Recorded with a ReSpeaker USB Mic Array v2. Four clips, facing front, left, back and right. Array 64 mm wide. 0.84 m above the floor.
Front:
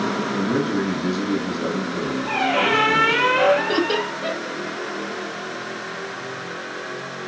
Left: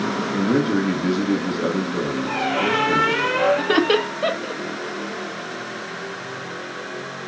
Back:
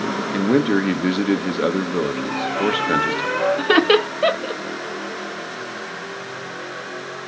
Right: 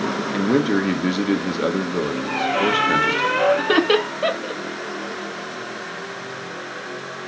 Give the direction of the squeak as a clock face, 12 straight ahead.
12 o'clock.